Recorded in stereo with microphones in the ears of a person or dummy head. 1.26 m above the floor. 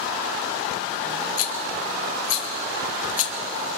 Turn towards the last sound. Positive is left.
turn(degrees=50)  # may be behind; listen again after turning